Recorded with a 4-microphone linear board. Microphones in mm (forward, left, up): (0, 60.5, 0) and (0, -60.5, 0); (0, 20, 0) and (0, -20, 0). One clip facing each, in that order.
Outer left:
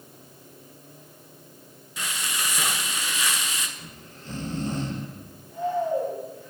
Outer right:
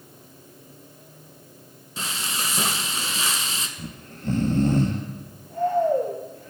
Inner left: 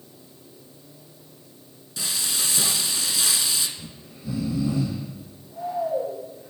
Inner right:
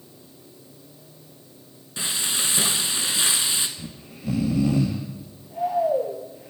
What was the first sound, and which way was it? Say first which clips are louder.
Frying: outer right 1 dB, inner right 2 dB; 30° right (ahead or behind).